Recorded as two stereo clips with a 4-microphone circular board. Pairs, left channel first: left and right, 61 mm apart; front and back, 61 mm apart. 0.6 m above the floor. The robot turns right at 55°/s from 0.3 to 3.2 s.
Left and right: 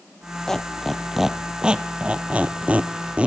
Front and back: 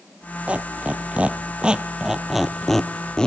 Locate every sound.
0.5 s a squeak: 155° left, 0.6 m; by 3.3 s 55° right, 0.6 m